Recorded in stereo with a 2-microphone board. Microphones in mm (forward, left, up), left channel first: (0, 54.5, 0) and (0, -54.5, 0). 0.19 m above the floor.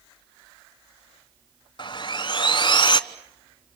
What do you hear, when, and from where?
1.8 s sawing: 45° left (ahead or behind), 0.9 m